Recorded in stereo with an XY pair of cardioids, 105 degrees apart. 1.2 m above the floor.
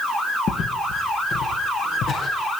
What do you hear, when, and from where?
0.5 s footsteps: 60° left, 6.5 m; by 2.3 s 70° left, 9 m